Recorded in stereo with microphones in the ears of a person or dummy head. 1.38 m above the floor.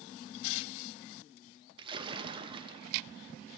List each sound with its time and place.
1.8 s a splash: 30° right (ahead or behind), 0.7 m